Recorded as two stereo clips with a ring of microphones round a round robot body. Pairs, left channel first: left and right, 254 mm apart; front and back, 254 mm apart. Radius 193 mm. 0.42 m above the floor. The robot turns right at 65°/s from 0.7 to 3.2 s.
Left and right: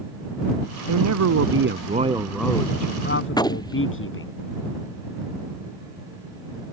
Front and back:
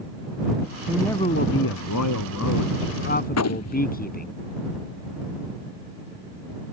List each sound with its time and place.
0.9 s a man speaking: 95° right; by 4.3 s 55° left
3.3 s a gunshot: 15° left